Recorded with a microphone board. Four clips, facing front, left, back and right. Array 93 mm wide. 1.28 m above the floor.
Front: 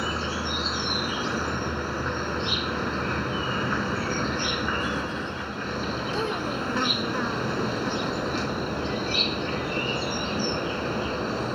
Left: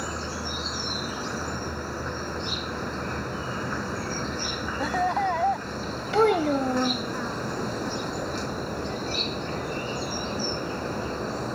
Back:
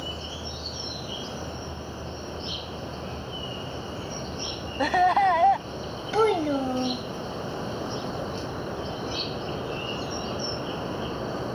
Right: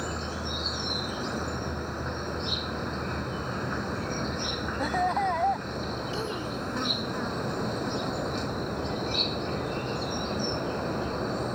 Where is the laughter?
175° left.